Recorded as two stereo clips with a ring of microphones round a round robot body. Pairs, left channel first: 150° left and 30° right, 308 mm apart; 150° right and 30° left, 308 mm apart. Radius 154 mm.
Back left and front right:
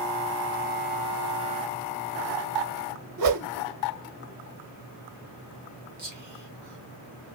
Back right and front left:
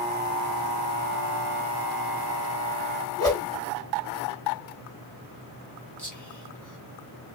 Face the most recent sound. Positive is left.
turn(degrees=-70)